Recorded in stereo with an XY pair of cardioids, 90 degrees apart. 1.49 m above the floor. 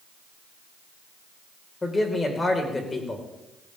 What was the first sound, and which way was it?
A man speaking, 25° left.